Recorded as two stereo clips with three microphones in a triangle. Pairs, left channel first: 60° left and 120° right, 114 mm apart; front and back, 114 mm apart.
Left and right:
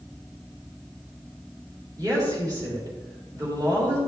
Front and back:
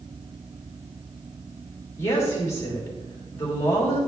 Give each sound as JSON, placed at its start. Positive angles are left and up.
{"t": 2.0, "sound": "a woman speaking", "azimuth_deg": -65, "distance_m": 3.5}